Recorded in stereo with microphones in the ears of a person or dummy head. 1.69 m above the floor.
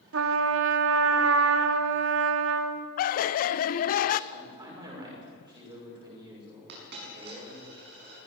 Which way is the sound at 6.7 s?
65° right (ahead or behind).